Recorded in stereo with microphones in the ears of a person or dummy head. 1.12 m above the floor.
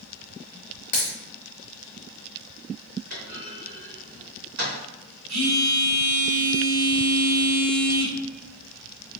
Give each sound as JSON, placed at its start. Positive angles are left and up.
{"t": 0.9, "sound": "a dropped coin", "side_deg": 40, "distance_m": 0.9}
{"t": 3.1, "sound": "a clunk", "side_deg": -50, "distance_m": 1.9}
{"t": 5.3, "sound": "a phone buzzing", "side_deg": -65, "distance_m": 2.0}